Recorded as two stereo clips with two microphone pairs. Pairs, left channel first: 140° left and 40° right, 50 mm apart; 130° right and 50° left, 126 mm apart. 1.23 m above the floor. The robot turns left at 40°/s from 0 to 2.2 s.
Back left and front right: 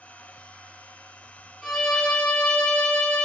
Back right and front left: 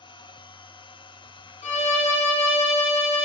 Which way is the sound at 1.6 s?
130° right.